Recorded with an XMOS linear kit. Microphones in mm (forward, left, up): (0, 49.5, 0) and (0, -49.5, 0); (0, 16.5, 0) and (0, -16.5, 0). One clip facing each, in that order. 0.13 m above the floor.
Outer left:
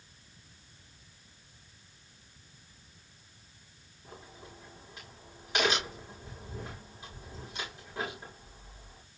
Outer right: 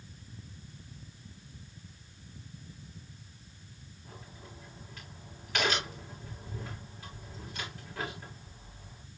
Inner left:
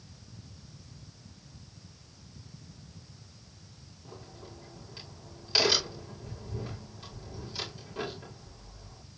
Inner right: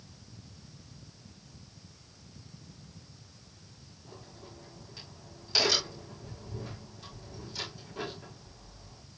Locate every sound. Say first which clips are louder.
4.0 s a crack: outer left 2 dB, inner left 2 dB; 20° left (ahead or behind), 8 m